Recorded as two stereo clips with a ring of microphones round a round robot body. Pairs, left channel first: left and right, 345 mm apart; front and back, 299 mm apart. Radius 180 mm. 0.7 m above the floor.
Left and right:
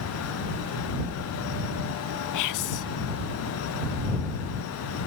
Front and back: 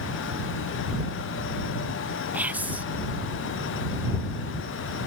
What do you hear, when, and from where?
2.3 s whispering: 95° left